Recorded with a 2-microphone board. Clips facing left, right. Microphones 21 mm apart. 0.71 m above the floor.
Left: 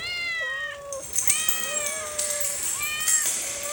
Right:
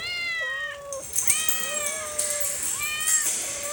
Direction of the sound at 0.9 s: 5° left (ahead or behind).